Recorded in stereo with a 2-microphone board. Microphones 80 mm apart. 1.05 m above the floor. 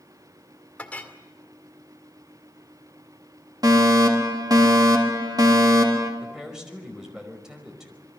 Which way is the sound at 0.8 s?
15° left (ahead or behind).